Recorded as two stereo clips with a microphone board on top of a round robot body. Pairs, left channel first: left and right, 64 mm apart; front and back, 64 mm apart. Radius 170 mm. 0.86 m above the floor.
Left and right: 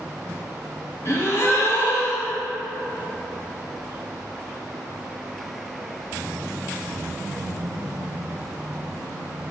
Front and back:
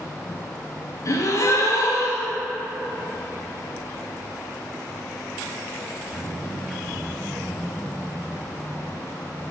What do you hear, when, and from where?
1.1 s a gasp: 40° left, 1.9 m